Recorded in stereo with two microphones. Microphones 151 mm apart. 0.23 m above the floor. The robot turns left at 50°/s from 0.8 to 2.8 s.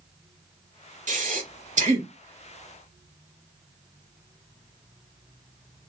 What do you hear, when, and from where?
1.1 s breathing: 60° right (ahead or behind), 0.9 m; by 2.1 s 45° right (ahead or behind), 0.9 m